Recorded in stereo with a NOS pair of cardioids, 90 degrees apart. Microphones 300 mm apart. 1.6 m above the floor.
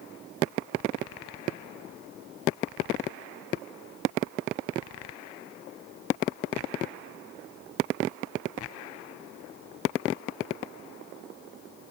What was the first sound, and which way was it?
Only background noise.